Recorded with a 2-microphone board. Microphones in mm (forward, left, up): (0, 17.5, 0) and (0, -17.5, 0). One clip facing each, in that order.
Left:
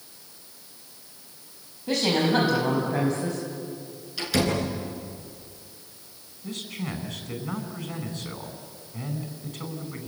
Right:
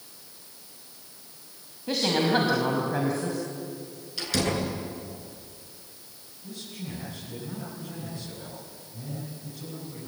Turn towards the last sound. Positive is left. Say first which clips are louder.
# left 6 dB
turn(degrees=65)  # may be behind; listen again after turning